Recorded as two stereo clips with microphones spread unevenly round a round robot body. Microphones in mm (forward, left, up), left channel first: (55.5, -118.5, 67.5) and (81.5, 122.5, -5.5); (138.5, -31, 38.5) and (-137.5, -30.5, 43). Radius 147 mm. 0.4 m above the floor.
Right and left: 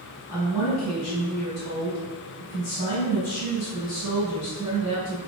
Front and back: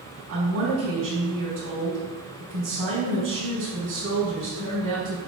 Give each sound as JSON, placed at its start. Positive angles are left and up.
{"t": 0.3, "sound": "a woman speaking", "azimuth_deg": -140, "distance_m": 3.5}